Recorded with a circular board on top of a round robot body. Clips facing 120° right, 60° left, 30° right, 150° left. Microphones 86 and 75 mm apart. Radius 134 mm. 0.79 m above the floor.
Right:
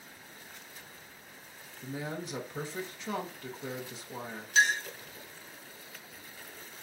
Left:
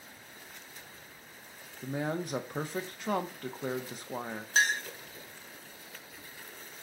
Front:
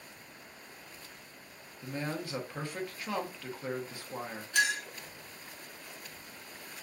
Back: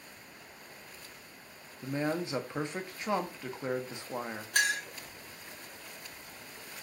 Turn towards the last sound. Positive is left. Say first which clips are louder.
# right 2 dB, front 1 dB
turn(degrees=105)